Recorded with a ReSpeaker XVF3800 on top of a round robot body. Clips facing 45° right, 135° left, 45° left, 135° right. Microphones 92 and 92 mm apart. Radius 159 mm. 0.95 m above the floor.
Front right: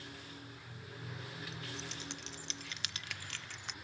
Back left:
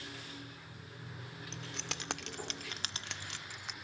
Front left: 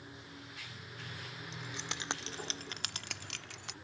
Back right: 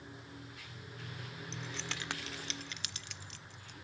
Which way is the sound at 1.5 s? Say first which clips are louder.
Back left 1 dB, back right 1 dB; 125° left.